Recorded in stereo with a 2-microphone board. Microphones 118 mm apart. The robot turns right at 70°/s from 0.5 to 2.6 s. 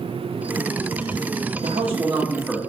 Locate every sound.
1.6 s a man speaking: 60° right, 1.1 m; by 2.6 s 5° left, 1.1 m